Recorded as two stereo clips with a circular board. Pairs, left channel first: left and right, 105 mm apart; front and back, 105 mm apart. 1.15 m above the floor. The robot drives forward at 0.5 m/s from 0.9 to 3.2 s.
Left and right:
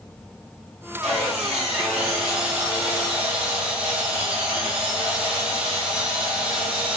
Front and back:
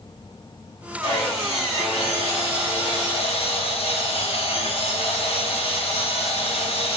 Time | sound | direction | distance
1.0 | sawing | 5° right | 2.5 m